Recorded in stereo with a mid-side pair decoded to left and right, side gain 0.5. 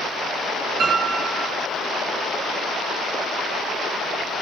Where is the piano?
55° right, 7 m.